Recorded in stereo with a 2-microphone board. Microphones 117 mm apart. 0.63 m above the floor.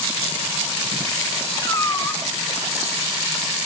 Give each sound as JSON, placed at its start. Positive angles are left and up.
{"t": 1.6, "sound": "a cat meowing", "side_deg": 30, "distance_m": 0.9}